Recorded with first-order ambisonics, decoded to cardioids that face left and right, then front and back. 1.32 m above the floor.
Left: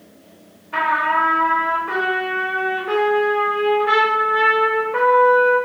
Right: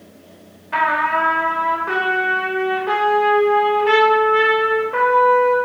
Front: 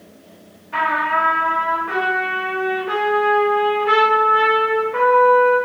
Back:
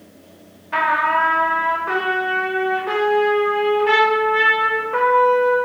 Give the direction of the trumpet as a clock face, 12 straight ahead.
4 o'clock.